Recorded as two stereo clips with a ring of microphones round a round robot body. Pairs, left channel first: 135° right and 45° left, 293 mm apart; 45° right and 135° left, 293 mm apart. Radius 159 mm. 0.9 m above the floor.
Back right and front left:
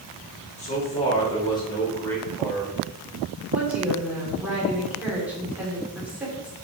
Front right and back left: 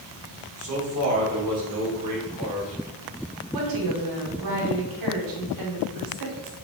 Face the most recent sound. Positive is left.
turn(degrees=130)